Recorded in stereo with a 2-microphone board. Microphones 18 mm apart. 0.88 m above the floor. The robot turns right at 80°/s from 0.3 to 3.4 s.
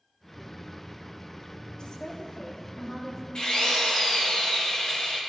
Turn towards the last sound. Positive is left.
turn(degrees=55)  # may be behind; listen again after turning